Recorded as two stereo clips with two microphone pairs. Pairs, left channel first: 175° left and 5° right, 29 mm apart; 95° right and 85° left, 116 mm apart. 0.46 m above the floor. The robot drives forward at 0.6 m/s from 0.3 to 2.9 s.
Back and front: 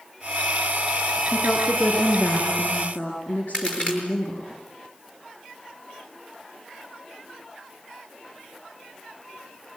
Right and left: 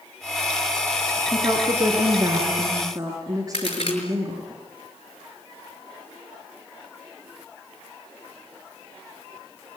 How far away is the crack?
About 5.5 m.